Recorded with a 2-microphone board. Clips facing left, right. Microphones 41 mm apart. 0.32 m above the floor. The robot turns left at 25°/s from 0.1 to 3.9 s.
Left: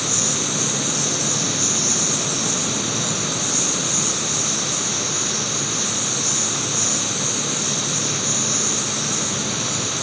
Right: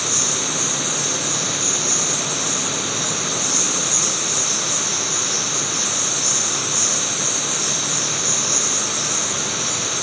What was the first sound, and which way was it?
An insect, 120° left.